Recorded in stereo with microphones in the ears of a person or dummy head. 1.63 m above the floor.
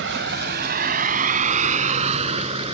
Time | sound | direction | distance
0.0 | a vehicle | 70° right (ahead or behind) | ?